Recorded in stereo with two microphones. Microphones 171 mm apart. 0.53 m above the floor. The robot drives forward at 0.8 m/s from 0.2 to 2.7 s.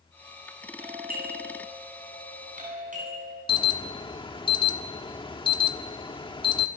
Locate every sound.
0.8 s a doorbell: 60° right (ahead or behind), 6.5 m; by 3.4 s 50° right (ahead or behind), 7.5 m
3.5 s an alarm: 30° left (ahead or behind), 1.3 m